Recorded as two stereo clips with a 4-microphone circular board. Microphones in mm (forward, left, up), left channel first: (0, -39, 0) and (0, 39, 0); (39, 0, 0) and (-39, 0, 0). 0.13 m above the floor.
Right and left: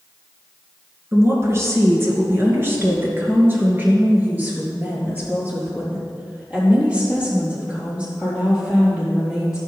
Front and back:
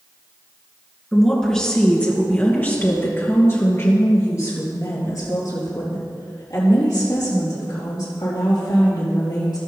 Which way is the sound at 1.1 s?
85° left.